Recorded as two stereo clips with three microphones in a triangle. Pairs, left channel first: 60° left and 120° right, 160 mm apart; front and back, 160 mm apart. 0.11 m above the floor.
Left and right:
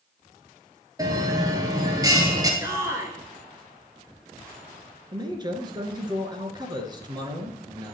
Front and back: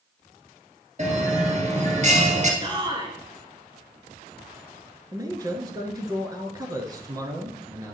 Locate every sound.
1.0 s a bell: 175° right, 1.5 m
2.6 s a shout: 170° right, 1.2 m
5.1 s a man speaking: 140° right, 1.2 m